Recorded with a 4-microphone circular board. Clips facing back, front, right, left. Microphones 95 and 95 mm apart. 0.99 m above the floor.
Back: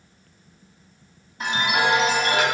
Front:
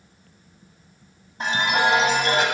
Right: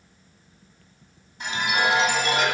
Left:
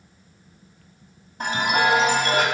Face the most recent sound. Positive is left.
turn(degrees=55)